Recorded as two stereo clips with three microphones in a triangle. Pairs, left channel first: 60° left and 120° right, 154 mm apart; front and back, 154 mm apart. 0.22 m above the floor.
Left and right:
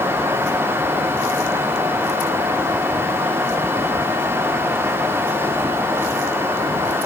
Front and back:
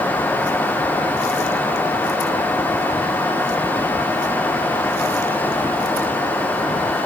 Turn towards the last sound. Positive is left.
No sound to turn to.